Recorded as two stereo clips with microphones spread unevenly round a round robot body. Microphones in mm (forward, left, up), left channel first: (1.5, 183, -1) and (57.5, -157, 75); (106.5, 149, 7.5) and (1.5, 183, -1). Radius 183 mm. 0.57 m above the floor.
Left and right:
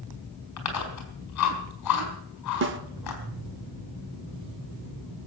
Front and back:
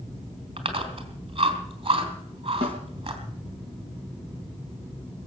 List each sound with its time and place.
0.6 s chewing: 140° left, 3.5 m
2.6 s a snare drum: 140° right, 0.7 m